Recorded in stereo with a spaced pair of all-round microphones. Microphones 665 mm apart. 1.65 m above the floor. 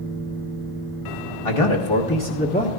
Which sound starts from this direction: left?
A man speaking, at 1.4 s.